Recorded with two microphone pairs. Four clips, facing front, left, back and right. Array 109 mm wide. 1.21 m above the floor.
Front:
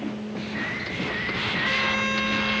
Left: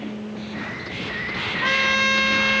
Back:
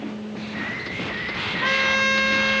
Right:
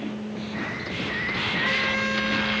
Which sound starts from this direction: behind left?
A trumpet, at 1.6 s.